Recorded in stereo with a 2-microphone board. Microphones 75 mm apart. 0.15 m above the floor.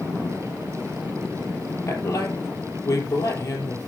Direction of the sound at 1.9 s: 40° left (ahead or behind).